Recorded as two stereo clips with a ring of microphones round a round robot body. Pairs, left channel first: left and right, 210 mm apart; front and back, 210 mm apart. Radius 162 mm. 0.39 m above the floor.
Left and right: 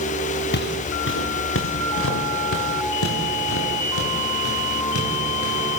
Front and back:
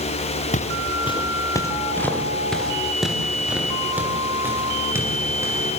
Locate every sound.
0.5 s footsteps: 55° left, 3 m; by 5.8 s 105° left, 8.5 m